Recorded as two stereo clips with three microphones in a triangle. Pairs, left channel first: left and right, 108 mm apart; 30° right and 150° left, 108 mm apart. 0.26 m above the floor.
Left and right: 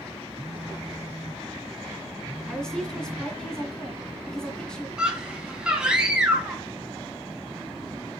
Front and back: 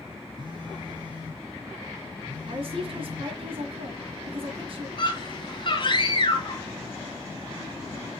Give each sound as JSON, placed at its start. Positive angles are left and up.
{"t": 0.4, "sound": "a phone buzzing", "azimuth_deg": -170, "distance_m": 2.5}
{"t": 2.5, "sound": "a woman speaking", "azimuth_deg": 170, "distance_m": 2.5}
{"t": 5.0, "sound": "a scream", "azimuth_deg": -10, "distance_m": 2.5}